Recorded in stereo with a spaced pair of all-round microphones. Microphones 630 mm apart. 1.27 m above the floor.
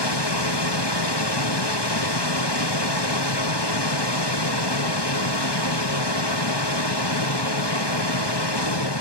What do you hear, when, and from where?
0.0 s a machine running: 40° left (ahead or behind), 0.7 m